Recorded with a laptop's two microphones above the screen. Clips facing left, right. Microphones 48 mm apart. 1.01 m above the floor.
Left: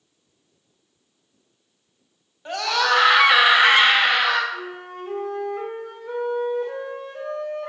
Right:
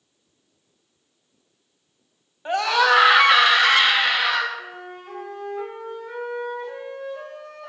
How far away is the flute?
About 2.5 m.